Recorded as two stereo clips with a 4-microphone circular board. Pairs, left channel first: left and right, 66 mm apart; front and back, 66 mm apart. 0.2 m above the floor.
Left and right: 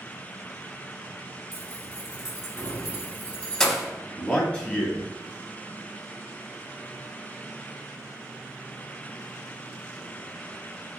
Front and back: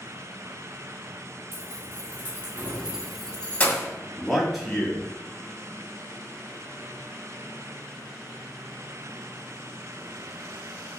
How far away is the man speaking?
About 1.0 m.